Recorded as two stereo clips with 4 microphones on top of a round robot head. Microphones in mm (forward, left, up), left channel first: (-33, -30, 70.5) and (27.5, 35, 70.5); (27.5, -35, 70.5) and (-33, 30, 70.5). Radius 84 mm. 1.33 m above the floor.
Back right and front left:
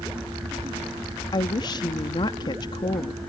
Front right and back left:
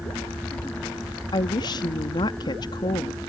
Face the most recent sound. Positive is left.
turn(degrees=-90)